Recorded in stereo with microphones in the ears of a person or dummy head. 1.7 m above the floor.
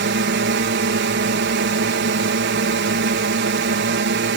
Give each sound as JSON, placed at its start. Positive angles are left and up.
{"t": 0.0, "sound": "a drone", "side_deg": -55}